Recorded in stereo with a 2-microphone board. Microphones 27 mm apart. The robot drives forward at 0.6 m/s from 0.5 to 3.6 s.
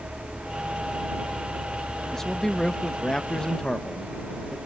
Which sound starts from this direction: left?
A man speaking, at 2.1 s.